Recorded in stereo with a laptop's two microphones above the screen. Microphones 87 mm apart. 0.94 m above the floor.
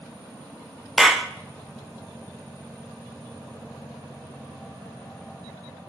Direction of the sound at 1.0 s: Centre (ahead or behind).